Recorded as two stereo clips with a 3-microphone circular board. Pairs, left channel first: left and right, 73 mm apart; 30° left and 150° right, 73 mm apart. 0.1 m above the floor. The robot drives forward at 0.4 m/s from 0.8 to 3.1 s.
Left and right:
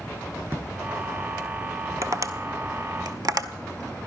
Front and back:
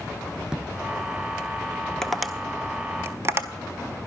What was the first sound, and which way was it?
A drawer, 85° right.